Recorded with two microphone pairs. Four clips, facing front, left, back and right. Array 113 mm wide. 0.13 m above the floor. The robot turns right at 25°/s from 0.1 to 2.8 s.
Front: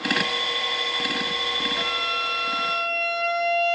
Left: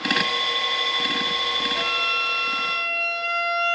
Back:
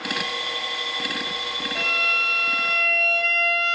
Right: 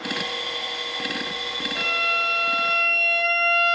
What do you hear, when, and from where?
1.8 s a violin: straight behind, 1.8 m; by 3.8 s 150° right, 1.8 m